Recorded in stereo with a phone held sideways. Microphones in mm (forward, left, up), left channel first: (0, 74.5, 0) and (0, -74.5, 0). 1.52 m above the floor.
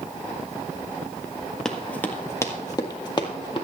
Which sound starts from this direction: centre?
Running footsteps, at 1.6 s.